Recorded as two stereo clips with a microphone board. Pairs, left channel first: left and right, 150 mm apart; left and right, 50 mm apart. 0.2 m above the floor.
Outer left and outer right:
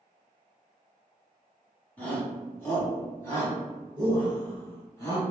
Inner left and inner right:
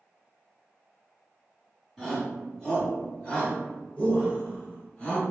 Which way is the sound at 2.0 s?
10° left (ahead or behind).